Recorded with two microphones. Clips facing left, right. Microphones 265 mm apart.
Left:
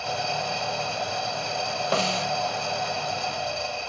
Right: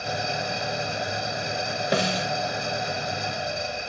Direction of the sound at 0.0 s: 20° right (ahead or behind).